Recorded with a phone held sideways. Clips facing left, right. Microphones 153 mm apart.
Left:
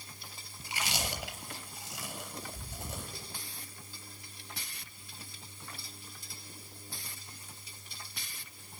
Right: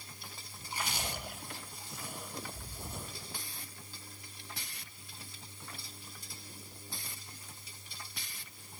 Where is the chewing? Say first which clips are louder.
Left 2 dB; 80° left, 4 m.